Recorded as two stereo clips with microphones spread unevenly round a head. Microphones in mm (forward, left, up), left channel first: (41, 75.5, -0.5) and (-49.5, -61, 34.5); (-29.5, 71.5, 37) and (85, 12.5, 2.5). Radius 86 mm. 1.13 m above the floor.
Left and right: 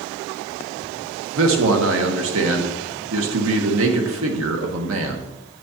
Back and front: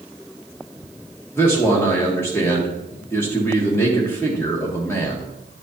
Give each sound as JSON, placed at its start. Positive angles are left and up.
{"t": 1.4, "sound": "a man speaking", "azimuth_deg": -125, "distance_m": 1.3}